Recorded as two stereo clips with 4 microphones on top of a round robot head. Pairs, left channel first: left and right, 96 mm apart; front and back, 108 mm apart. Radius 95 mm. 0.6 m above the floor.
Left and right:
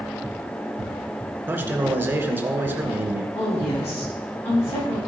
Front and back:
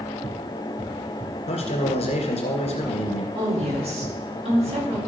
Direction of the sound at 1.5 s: 25° right.